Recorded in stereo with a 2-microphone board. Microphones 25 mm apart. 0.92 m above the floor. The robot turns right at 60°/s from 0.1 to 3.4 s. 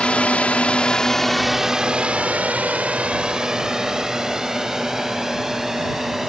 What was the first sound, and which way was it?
A drone, 50° left (ahead or behind).